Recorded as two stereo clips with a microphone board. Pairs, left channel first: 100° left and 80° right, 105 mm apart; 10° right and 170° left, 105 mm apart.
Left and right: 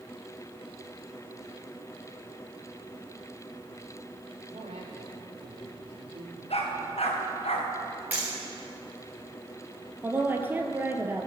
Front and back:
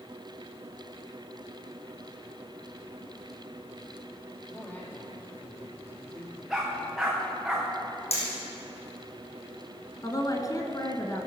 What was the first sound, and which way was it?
A man speaking, 85° right.